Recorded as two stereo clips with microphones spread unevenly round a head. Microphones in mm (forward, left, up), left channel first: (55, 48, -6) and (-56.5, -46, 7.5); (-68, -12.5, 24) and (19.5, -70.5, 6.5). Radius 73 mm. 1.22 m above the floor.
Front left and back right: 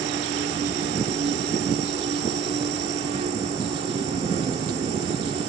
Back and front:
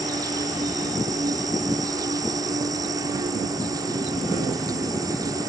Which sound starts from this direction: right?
An insect, at 0.0 s.